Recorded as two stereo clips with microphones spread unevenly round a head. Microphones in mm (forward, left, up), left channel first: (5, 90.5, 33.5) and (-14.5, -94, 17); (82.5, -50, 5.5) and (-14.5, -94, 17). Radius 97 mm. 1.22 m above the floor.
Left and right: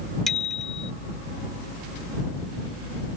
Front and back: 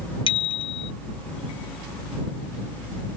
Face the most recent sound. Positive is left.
turn(degrees=-5)